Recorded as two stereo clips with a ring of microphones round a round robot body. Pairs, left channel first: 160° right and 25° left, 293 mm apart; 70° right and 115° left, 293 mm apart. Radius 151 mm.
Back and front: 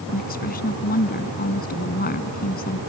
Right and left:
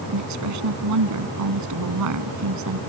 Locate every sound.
0.1 s a woman speaking: 140° left